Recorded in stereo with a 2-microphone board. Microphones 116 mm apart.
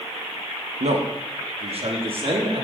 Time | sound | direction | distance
0.8 | a man speaking | 70° right (ahead or behind) | 1.1 m